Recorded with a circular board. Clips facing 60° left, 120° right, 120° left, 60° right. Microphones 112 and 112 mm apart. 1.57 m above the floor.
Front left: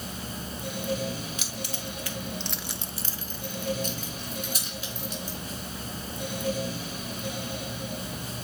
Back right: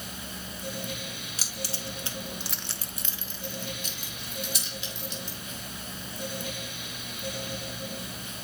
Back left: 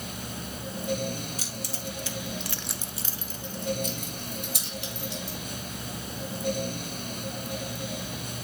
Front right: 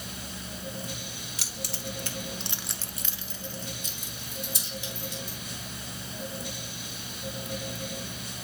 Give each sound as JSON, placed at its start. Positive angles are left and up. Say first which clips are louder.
{"t": 1.4, "sound": "keys jangling", "louder": "front left 2 dB, back left 2 dB", "azimuth_deg": -70, "distance_m": 1.7}